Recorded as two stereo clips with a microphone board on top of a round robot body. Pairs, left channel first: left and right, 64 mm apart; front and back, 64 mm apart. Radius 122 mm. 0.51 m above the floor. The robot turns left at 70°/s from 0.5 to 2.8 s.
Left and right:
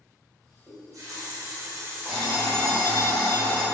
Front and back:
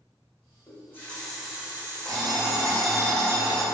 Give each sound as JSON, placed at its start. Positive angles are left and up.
{"t": 0.7, "sound": "a running tap", "azimuth_deg": -45, "distance_m": 0.9}
{"t": 2.0, "sound": "an alarm clock", "azimuth_deg": -165, "distance_m": 0.9}